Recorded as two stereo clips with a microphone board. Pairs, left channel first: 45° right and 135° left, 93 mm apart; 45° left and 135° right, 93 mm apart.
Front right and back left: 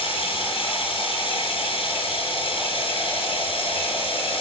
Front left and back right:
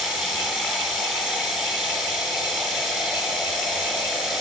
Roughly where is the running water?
Ahead right.